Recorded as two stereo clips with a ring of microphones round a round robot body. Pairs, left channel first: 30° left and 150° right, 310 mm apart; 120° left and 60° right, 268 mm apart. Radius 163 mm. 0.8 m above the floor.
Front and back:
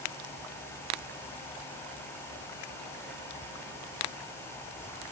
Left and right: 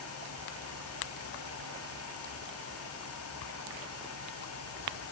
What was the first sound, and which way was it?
Only background noise.